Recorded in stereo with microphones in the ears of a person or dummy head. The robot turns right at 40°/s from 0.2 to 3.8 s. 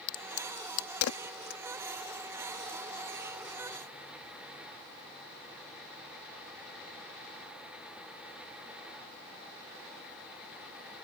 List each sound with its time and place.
0.1 s a crack: 60° left (ahead or behind); by 1.6 s 55° left (ahead or behind)